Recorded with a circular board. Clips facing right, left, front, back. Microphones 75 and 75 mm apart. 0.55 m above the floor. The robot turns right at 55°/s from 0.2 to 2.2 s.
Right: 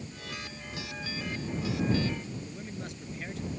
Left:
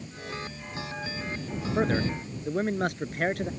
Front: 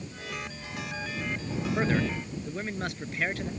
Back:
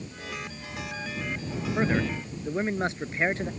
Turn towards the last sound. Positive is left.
turn(degrees=120)